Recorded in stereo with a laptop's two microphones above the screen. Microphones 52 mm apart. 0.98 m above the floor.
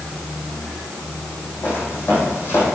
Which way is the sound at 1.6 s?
50° left (ahead or behind).